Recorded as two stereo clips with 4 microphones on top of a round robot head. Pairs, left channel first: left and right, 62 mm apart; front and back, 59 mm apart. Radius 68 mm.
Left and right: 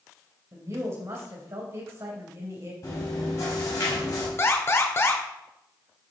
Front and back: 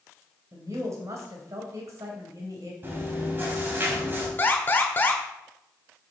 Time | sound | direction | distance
0.5 | a woman speaking | 140° right | 2.5 m
2.8 | chewing | 130° left | 3.5 m
4.4 | an alarm | 50° left | 1.7 m